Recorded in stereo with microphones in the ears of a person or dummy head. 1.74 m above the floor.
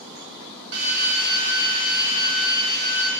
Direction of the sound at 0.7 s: 55° right (ahead or behind).